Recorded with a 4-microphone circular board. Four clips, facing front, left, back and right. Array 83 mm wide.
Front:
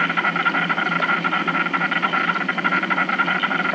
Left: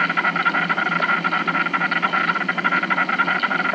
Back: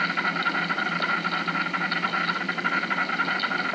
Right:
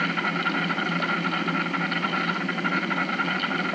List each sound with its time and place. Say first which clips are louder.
0.0 s an insect: left 6 dB, front 5 dB; 35° left, 1.6 m